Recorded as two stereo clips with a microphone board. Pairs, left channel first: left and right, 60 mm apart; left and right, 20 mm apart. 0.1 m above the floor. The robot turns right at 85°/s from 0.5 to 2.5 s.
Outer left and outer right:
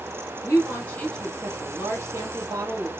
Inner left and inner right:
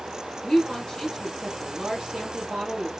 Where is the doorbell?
No doorbell in this recording.